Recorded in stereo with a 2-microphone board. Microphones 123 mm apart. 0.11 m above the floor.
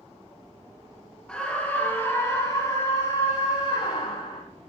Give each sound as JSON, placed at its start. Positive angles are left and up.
{"t": 1.3, "sound": "a scream", "side_deg": 10, "distance_m": 2.0}